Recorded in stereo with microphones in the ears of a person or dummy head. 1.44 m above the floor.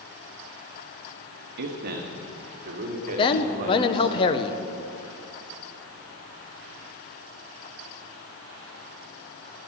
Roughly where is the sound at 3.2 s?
Left.